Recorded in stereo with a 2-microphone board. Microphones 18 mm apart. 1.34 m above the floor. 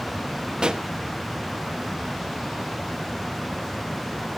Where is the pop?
40° right (ahead or behind), 1.1 m.